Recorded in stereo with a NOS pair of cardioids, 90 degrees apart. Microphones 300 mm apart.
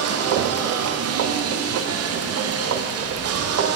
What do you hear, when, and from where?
0.0 s a machine running: 55° right, 0.7 m